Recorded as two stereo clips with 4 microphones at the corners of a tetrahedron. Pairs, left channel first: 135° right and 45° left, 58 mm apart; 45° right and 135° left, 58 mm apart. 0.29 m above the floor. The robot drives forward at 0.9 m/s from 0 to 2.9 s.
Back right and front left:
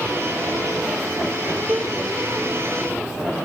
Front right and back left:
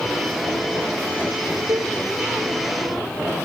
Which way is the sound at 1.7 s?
110° left.